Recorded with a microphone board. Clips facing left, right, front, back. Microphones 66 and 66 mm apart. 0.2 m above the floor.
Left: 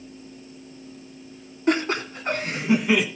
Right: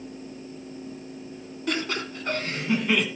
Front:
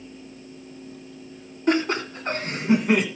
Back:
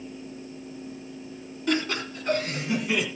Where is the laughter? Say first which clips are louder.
Left 6 dB, front 5 dB; 40° left, 2 m; by 3.0 s 10° left, 2 m.